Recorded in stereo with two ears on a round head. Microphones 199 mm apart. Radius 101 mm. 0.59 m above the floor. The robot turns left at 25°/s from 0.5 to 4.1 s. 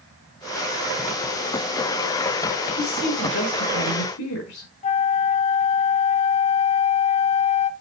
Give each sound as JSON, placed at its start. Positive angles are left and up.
{"t": 2.8, "sound": "a woman speaking", "azimuth_deg": 135, "distance_m": 5.5}
{"t": 4.8, "sound": "a flute", "side_deg": 30, "distance_m": 0.7}